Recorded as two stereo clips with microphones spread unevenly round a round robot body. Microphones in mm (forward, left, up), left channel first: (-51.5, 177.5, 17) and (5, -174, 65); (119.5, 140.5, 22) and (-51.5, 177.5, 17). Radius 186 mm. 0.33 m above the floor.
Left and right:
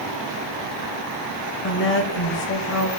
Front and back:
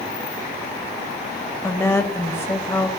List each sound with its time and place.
1.6 s a woman speaking: 60° left, 1.9 m